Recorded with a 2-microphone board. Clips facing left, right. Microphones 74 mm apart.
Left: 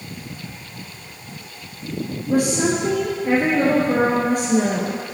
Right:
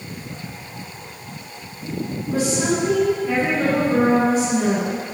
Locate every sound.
2.3 s a woman speaking: 65° left (ahead or behind), 2.5 m